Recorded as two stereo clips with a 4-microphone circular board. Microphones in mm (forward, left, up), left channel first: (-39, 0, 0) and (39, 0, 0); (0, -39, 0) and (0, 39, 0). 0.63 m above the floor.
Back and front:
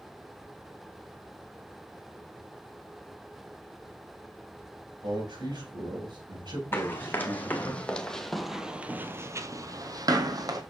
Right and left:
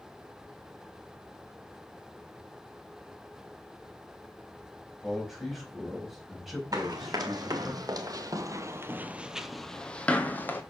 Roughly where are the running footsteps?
Behind left.